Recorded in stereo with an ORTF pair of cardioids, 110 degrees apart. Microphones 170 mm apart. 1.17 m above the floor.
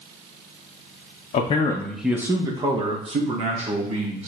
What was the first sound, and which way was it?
A man speaking, 45° left.